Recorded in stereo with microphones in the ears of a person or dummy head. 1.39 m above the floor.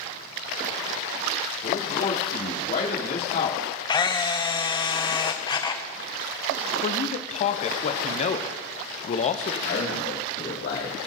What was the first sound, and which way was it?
A man speaking, 55° left (ahead or behind).